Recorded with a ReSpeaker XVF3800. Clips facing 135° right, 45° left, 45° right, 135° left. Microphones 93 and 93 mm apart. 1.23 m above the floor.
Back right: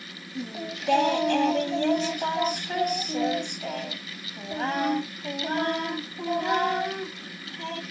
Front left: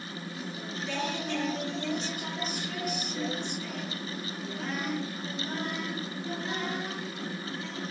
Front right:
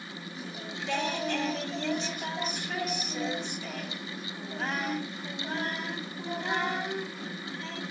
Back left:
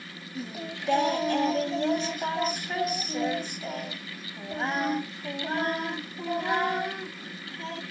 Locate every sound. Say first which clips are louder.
0.3 s singing: back right 7 dB, back left 5 dB; 175° right, 1.9 m